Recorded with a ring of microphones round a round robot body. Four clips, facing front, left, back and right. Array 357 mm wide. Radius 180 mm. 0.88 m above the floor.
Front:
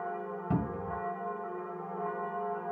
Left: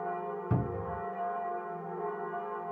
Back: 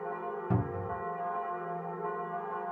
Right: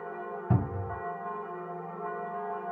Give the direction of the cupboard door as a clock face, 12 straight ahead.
3 o'clock.